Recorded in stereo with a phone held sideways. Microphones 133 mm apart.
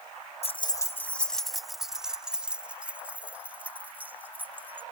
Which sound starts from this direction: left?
Keys jangling, at 0.4 s.